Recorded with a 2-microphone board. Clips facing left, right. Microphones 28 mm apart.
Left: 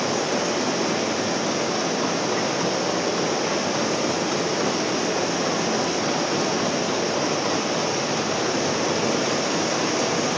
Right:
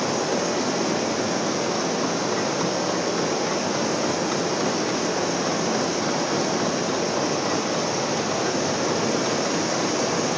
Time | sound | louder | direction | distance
0.0 | running water | even | 30° left (ahead or behind) | 7.5 m